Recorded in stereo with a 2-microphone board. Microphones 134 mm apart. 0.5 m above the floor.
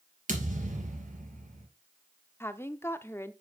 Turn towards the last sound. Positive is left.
turn(degrees=20)  # may be behind; listen again after turning